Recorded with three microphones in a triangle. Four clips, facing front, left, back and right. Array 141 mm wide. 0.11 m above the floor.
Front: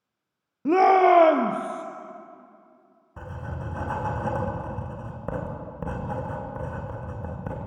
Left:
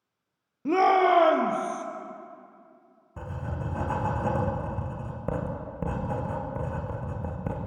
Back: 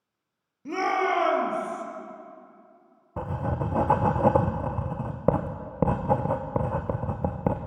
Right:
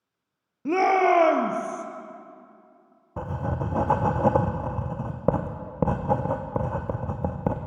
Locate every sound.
0.7 s a shout: straight ahead, 1.8 m; by 1.9 s 20° right, 2.5 m
3.2 s writing: 140° right, 2.5 m